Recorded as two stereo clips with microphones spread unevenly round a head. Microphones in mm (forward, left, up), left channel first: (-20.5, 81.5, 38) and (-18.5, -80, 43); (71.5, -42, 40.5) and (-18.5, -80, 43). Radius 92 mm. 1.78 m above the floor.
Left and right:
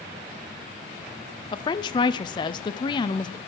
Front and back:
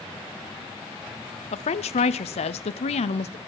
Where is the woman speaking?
25° left, 0.7 m.